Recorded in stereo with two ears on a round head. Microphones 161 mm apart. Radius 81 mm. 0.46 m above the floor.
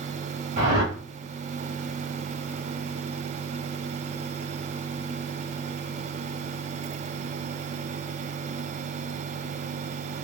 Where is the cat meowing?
I don't hear a cat meowing.